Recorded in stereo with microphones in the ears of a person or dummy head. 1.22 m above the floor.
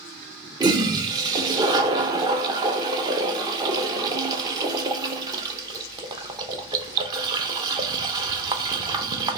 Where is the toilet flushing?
25° right (ahead or behind), 0.7 m.